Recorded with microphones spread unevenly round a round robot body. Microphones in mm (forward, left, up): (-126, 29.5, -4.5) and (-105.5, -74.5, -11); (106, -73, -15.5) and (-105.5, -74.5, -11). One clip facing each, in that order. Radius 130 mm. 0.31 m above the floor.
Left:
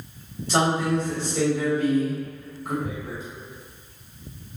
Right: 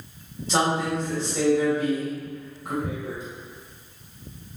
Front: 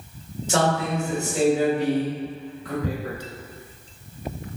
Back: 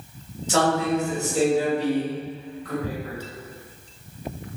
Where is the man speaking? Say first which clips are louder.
Left 2 dB, back 2 dB; 25° right, 1.5 m.